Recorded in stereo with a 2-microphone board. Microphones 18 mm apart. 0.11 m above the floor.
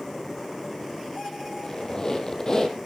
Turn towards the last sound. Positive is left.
turn(degrees=30)  # may be behind; listen again after turning